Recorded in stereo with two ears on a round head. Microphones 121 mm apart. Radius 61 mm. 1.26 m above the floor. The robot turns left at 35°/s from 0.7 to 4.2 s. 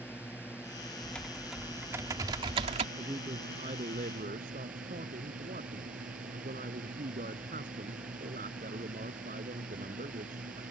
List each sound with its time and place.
0.0 s a drone: 15° left; by 10.7 s 105° right
1.0 s typing on a keyboard: 15° left; by 2.9 s 50° right
3.0 s a man speaking: 20° right; by 10.6 s 65° right